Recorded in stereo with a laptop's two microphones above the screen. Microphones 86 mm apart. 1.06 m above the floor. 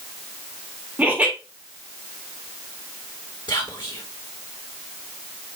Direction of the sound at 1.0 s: 20° right (ahead or behind).